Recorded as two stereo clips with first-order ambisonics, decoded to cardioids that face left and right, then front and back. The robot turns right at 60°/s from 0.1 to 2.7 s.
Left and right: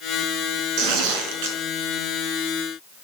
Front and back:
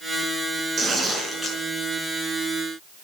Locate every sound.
0.8 s tearing paper: 120° right, 5 m; by 1.6 s 70° right, 5 m